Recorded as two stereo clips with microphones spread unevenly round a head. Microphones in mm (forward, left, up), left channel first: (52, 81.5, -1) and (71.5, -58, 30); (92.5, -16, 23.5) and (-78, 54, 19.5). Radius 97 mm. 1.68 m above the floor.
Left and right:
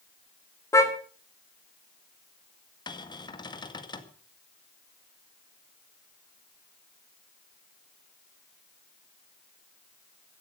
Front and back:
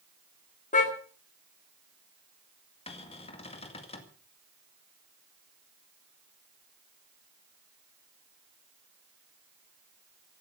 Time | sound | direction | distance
0.7 | a car horn | 25° left | 2.5 m
2.9 | a cupboard door | 35° left | 1.9 m